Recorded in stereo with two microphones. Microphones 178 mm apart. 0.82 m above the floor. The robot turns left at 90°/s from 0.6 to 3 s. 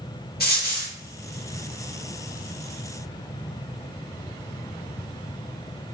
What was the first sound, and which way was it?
A dropped coin, 60° left (ahead or behind).